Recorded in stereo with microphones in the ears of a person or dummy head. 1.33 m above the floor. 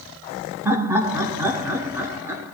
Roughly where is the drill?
No drill in this recording.